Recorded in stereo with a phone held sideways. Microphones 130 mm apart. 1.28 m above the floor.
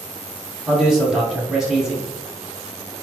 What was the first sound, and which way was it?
A man speaking, 5° right (ahead or behind).